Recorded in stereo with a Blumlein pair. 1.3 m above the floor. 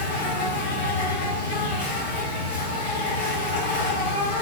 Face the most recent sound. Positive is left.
turn(degrees=60)